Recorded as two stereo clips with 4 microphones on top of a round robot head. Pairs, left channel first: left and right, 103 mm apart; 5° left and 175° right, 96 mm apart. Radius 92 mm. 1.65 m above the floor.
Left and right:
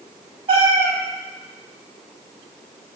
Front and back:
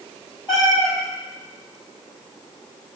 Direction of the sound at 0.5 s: 60° right.